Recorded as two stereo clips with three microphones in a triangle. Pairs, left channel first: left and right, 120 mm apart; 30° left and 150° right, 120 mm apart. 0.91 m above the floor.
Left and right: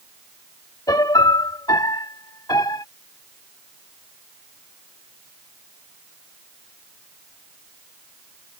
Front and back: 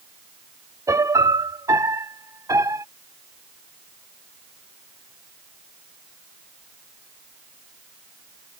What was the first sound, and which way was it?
A piano, 150° left.